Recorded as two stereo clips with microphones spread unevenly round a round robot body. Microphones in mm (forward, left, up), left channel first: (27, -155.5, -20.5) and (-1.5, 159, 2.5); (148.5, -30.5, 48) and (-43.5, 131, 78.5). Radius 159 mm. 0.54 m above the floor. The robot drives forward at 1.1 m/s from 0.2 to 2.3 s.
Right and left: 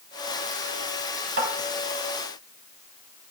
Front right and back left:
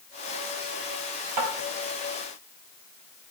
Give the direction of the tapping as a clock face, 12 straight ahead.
7 o'clock.